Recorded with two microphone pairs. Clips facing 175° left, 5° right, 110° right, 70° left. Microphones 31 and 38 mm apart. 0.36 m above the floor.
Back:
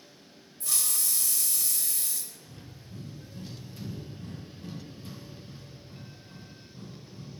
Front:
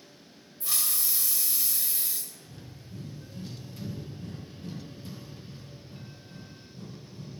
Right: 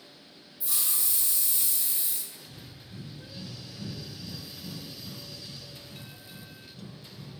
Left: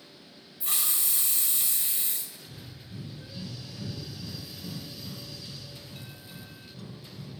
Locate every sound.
0.6 s a hiss: 65° left, 1.0 m
2.5 s breathing: 130° left, 3 m